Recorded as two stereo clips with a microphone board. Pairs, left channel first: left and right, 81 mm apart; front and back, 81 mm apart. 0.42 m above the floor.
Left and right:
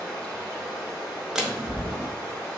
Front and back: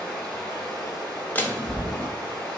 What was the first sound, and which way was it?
Running water, 150° left.